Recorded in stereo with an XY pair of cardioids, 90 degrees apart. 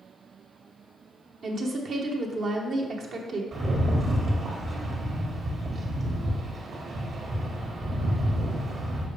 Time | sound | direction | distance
1.4 | a woman speaking | 65° right | 1.2 m
3.5 | a rattle | 55° right | 1.6 m